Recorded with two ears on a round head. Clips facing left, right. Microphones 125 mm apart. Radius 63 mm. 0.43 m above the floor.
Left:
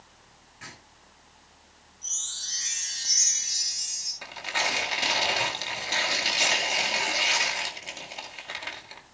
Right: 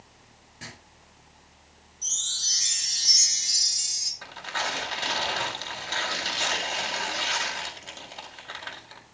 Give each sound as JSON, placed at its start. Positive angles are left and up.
{"t": 0.6, "sound": "writing", "side_deg": -40, "distance_m": 6.5}
{"t": 2.0, "sound": "a chime", "side_deg": -75, "distance_m": 5.5}
{"t": 4.2, "sound": "tearing paper", "side_deg": 15, "distance_m": 2.5}